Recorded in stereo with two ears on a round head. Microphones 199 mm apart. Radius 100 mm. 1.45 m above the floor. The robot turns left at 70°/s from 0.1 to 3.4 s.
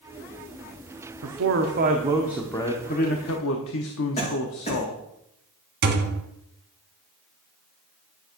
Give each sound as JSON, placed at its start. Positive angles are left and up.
{"t": 1.2, "sound": "a man speaking", "azimuth_deg": -95, "distance_m": 0.8}
{"t": 4.2, "sound": "a cough", "side_deg": 30, "distance_m": 2.0}
{"t": 5.8, "sound": "a thud", "side_deg": -50, "distance_m": 1.2}